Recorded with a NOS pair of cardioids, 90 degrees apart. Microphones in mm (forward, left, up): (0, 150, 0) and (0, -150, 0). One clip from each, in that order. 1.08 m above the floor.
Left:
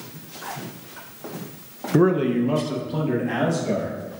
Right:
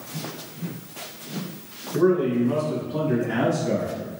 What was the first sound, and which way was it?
A man speaking, 50° left.